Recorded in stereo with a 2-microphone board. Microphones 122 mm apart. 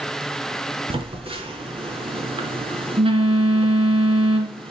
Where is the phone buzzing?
50° right (ahead or behind), 2.5 m.